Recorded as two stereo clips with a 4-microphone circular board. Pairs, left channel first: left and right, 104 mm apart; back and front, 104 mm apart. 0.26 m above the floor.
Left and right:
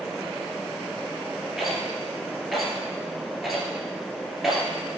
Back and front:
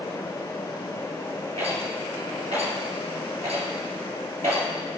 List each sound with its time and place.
1.6 s a rattle: straight ahead, 2.5 m